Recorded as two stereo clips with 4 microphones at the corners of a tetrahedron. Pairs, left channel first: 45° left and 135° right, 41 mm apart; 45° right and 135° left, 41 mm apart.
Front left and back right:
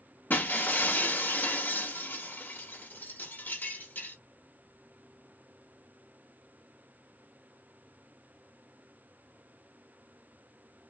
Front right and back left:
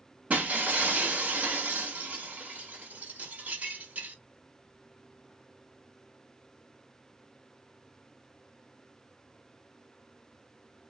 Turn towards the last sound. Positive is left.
turn(degrees=80)